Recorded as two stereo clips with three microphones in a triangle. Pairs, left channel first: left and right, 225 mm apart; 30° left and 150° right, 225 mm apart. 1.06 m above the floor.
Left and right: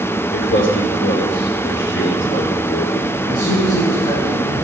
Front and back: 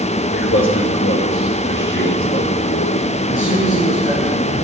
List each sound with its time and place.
0.3 s a man speaking: 60° left, 4 m
3.2 s a man speaking: 90° left, 8.5 m